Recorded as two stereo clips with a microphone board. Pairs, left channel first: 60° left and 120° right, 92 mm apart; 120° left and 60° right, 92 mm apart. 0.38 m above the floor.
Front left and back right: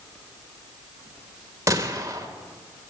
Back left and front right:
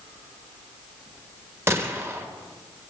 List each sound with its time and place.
1.7 s a gunshot: 100° right, 1.2 m